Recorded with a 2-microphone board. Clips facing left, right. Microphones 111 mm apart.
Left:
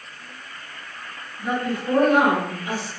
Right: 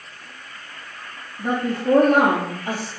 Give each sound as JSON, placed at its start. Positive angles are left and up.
{"t": 1.4, "sound": "a woman speaking", "side_deg": -45, "distance_m": 3.5}